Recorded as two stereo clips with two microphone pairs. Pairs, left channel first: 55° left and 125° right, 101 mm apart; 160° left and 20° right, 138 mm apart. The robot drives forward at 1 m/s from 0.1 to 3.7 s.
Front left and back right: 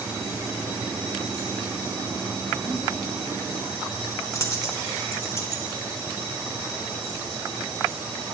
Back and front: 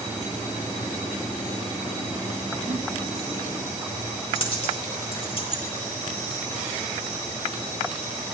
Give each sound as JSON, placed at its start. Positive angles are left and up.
{"t": 2.7, "sound": "a giggle", "azimuth_deg": -50, "distance_m": 0.6}
{"t": 4.3, "sound": "a dropped coin", "azimuth_deg": 110, "distance_m": 0.9}